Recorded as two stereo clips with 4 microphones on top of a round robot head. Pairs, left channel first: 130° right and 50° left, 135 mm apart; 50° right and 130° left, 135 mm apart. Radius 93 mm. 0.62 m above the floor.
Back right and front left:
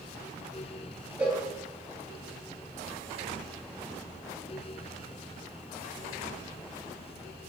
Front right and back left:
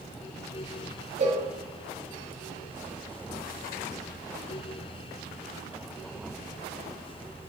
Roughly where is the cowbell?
Behind left.